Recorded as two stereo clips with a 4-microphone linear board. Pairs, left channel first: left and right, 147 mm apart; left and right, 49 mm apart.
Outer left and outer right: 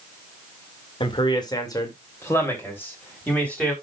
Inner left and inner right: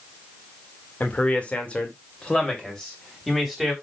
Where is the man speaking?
35° left (ahead or behind), 1.8 m; by 3.7 s 10° left (ahead or behind), 4 m.